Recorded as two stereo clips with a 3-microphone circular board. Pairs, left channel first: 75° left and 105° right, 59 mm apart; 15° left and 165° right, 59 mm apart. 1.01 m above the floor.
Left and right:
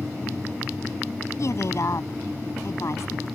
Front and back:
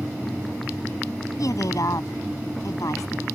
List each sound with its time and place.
1.4 s a woman speaking: 40° left